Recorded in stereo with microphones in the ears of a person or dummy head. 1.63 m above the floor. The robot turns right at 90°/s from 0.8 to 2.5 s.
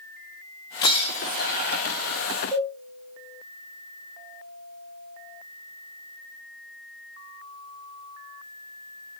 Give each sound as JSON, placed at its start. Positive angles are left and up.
{"t": 0.8, "sound": "breaking glass", "azimuth_deg": 30, "distance_m": 1.9}
{"t": 2.5, "sound": "a cowbell", "side_deg": 20, "distance_m": 6.0}